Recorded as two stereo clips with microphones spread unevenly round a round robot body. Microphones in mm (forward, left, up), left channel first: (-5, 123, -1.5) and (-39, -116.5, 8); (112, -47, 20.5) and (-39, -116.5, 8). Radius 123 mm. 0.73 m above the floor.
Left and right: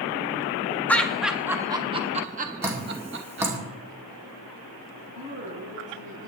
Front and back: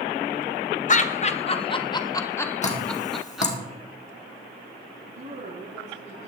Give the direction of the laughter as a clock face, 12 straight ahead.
12 o'clock.